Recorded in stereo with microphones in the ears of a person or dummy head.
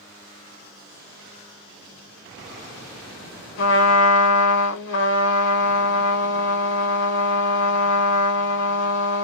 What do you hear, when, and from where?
3.6 s a trumpet: 60° left (ahead or behind), 1.2 m